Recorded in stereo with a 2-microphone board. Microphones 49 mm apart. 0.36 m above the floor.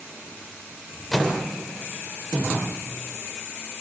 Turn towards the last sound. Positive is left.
turn(degrees=5)  # may be behind; listen again after turning